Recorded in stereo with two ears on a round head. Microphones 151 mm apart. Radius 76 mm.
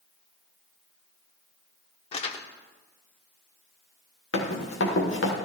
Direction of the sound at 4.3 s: 80° left.